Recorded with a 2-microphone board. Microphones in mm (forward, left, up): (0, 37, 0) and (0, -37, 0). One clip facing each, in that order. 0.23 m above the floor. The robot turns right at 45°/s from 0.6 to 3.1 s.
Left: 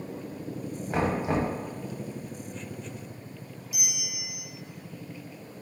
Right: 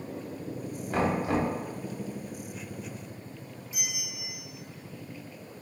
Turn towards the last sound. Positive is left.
turn(degrees=-30)  # may be behind; listen again after turning